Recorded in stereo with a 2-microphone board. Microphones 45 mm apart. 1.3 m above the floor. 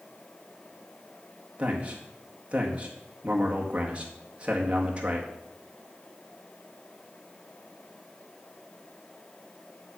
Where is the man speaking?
30° right (ahead or behind), 2.0 m.